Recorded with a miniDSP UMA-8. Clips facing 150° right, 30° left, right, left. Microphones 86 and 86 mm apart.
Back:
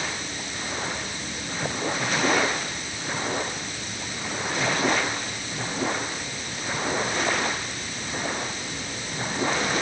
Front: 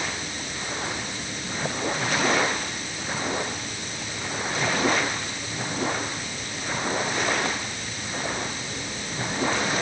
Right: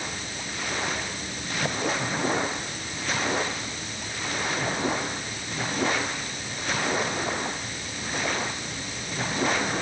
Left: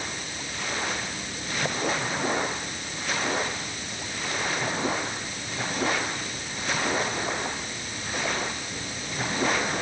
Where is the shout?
No shout in this recording.